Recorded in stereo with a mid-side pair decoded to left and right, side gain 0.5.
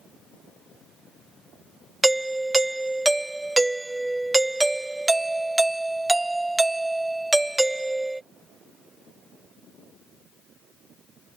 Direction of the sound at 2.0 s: 15° right.